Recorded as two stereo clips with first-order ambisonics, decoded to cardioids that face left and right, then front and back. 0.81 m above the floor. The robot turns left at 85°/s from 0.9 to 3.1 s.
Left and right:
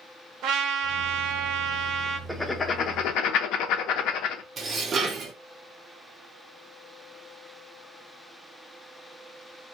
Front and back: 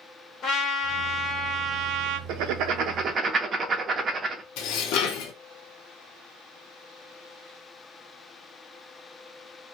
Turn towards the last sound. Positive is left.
turn(degrees=-25)